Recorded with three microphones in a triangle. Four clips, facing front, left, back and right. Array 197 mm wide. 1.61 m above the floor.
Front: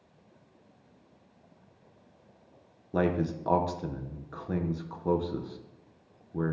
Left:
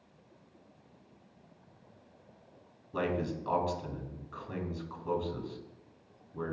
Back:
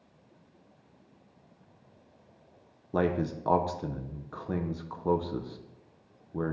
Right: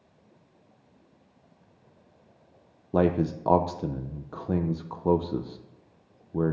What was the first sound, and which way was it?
A man speaking, 90° right.